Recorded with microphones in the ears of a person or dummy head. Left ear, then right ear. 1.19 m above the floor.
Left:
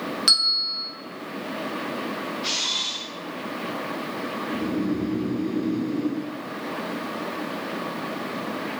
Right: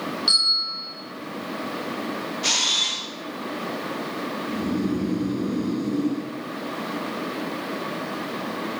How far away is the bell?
About 1.7 m.